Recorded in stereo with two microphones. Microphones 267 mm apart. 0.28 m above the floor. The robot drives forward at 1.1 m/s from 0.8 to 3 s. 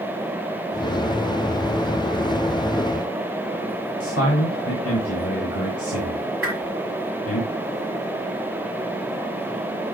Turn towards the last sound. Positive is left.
turn(degrees=-50)  # may be behind; listen again after turning